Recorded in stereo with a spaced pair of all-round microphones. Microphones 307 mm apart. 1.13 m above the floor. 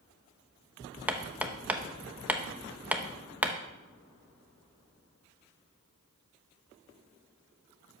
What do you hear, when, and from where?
1.1 s hammering: 5° right (ahead or behind), 0.9 m